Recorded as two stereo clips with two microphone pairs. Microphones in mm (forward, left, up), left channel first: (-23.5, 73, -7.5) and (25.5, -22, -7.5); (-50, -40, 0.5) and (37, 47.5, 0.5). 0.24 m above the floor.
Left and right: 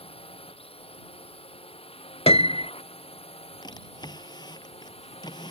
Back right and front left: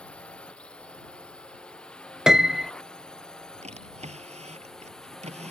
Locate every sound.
0.0 s a drone: 145° left; by 5.5 s 140° left
2.3 s a piano: 130° left
3.6 s a drawer: 70° left